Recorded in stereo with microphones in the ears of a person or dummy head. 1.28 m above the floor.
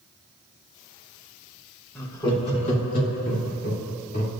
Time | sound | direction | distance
1.9 | laughter | 15° left (ahead or behind) | 1.0 m